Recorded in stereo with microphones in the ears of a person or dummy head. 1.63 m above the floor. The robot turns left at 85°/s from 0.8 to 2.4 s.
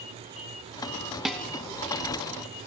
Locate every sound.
1.2 s dishes clattering: centre (ahead or behind), 0.7 m; by 1.4 s 5° left (ahead or behind), 0.7 m